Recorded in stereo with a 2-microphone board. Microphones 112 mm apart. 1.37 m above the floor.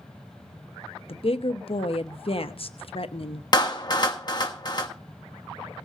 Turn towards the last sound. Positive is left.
turn(degrees=40)  # may be behind; listen again after turning